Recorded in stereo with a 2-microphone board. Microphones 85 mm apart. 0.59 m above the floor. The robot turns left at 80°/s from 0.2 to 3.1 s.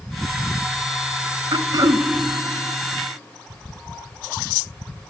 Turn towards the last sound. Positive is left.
turn(degrees=130)